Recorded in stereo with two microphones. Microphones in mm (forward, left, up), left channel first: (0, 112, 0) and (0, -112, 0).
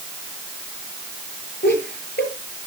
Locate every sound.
1.6 s laughter: 45° left (ahead or behind), 9 m